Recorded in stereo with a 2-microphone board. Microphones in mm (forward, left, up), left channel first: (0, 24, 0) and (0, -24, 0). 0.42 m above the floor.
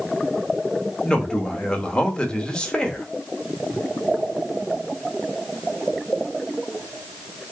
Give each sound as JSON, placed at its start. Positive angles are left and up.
{"t": 1.0, "sound": "a man speaking", "side_deg": 20, "distance_m": 0.9}